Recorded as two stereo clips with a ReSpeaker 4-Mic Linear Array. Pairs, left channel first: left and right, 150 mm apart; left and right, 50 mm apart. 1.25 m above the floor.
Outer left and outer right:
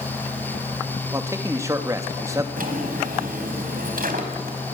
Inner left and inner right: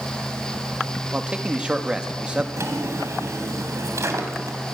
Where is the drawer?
70° right (ahead or behind), 3.5 m.